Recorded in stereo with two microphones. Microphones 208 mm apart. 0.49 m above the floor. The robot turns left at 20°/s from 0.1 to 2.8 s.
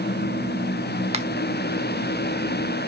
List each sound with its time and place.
1.1 s a finger snap: 30° right (ahead or behind), 1.1 m